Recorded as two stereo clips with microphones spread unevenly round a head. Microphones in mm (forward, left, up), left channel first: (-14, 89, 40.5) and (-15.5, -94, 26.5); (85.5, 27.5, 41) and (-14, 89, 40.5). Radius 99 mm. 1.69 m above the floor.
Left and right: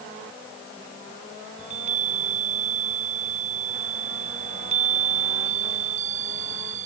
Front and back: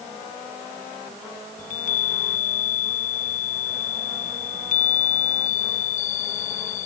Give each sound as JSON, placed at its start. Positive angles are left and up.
{"t": 1.6, "sound": "a chime", "azimuth_deg": -35}